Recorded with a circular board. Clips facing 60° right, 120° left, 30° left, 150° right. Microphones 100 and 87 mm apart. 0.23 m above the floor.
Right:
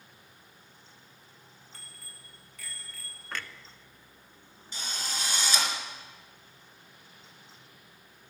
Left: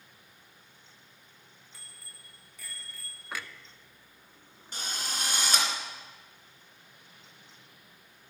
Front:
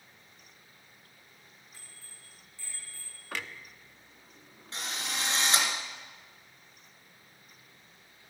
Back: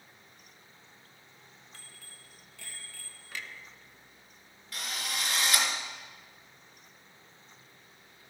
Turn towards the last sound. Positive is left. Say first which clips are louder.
# even, even
turn(degrees=90)